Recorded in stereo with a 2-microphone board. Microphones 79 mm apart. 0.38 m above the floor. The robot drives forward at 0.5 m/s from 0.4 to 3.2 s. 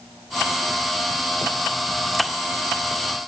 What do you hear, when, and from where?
Only background noise.